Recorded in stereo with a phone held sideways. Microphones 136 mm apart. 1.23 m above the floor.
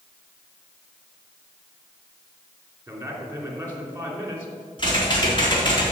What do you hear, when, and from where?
2.9 s a man speaking: 15° right (ahead or behind), 3 m
4.8 s typing on a keyboard: 35° left (ahead or behind), 3.5 m